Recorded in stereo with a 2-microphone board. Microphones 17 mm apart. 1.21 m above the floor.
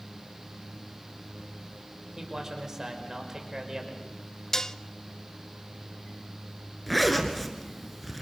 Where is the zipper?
5° left (ahead or behind), 2.5 m.